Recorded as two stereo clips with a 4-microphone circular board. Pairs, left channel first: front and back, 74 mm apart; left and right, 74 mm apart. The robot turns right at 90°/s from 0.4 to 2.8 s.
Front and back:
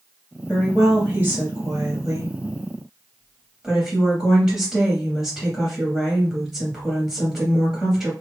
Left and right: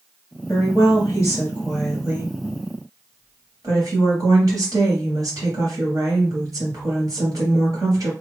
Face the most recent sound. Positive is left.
turn(degrees=-100)